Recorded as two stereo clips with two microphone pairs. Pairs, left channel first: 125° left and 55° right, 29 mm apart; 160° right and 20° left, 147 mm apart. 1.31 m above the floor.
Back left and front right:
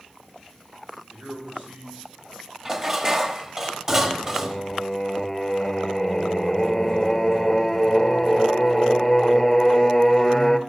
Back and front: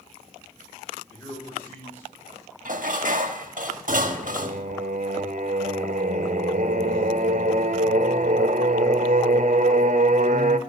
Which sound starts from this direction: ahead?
Dishes clattering, at 2.6 s.